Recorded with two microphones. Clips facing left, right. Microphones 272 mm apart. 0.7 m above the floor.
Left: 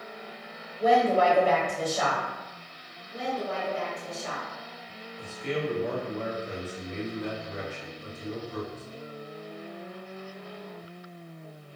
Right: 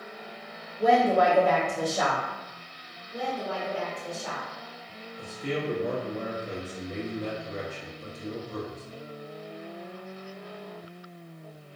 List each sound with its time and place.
0.8 s a woman speaking: 35° right (ahead or behind), 1.6 m
3.1 s a woman speaking: 35° right (ahead or behind), 1.3 m
5.2 s a man speaking: 40° right (ahead or behind), 0.7 m